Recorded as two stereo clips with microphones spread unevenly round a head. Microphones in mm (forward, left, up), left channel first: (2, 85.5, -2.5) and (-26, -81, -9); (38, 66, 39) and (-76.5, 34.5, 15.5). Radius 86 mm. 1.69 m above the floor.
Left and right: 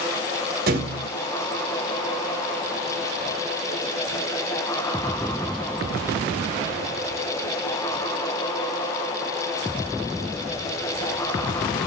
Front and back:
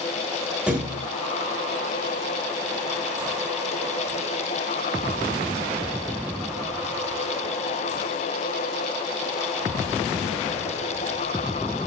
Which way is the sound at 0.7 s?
75° right.